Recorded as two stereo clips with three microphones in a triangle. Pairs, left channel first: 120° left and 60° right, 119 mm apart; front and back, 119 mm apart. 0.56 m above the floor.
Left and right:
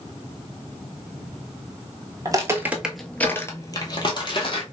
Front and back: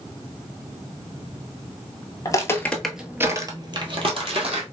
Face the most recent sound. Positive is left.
turn(degrees=160)